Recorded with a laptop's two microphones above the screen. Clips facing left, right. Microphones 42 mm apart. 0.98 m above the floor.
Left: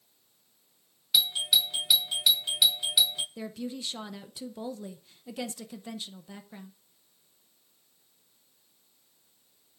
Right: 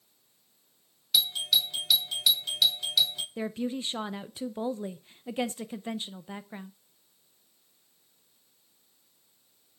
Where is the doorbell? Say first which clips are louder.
Left 1 dB; 10° left (ahead or behind), 0.8 m.